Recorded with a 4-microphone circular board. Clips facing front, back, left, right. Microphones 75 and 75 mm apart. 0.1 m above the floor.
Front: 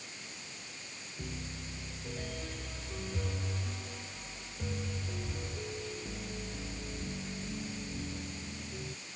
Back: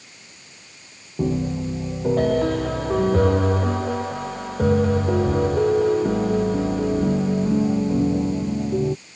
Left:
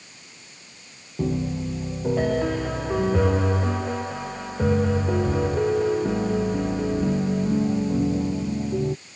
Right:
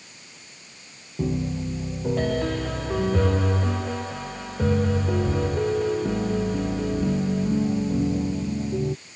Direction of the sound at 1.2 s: 170° left.